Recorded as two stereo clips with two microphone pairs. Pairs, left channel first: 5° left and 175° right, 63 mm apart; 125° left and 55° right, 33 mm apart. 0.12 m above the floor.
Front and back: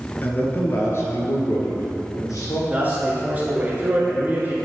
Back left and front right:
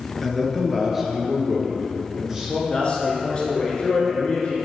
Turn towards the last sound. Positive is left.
turn(degrees=145)